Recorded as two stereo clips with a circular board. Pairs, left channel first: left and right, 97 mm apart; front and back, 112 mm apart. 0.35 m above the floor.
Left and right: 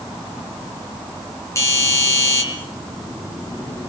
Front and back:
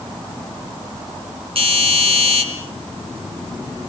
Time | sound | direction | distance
1.6 | a doorbell | 150° left | 7 m